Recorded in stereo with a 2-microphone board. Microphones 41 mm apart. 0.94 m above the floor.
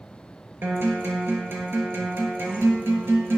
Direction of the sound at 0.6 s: 70° right (ahead or behind).